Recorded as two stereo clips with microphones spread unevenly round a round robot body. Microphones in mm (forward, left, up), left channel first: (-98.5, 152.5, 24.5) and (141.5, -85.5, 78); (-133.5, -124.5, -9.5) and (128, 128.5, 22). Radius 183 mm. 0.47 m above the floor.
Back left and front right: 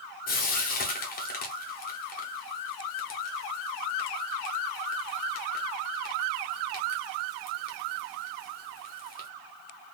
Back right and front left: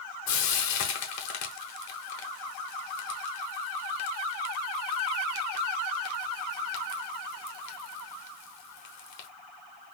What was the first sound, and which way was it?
Frying, 170° right.